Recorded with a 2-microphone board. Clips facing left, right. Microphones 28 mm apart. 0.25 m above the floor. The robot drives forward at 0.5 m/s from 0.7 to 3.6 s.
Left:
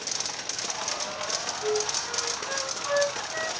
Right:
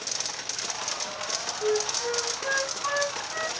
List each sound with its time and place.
1.6 s a flute: 80° right, 6 m; by 3.5 s 85° right, 6 m